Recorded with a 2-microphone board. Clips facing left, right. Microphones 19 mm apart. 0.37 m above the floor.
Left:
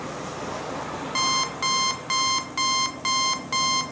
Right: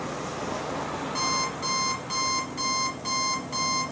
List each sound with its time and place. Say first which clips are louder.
1.1 s an alarm clock: left 5 dB; 45° left (ahead or behind), 1.0 m